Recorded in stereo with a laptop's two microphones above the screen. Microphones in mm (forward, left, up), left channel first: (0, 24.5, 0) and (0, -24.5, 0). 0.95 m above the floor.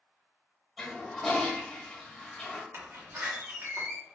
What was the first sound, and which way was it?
A toilet flushing, 5° left (ahead or behind).